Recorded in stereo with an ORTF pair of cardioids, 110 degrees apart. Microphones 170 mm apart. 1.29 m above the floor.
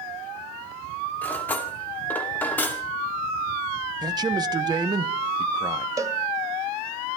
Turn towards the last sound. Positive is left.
turn(degrees=-20)